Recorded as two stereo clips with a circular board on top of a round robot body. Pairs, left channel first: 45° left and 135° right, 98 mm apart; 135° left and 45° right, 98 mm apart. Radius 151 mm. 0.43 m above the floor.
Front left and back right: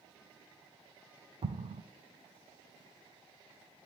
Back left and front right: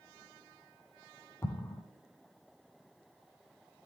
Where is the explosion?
160° right, 0.5 m.